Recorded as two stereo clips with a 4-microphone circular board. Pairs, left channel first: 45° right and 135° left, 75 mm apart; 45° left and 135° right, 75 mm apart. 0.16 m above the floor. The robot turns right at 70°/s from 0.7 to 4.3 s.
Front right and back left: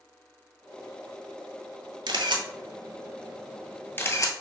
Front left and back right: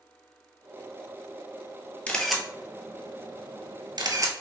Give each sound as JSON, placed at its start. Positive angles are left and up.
{"t": 2.1, "sound": "a camera shutter", "azimuth_deg": 115, "distance_m": 0.8}